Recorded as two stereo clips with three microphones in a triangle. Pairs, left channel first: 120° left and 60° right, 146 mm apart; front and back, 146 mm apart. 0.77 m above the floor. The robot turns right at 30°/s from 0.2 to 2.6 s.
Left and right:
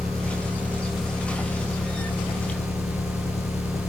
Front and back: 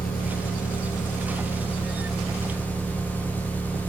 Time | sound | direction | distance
0.0 | an engine running | 5° left | 5.5 m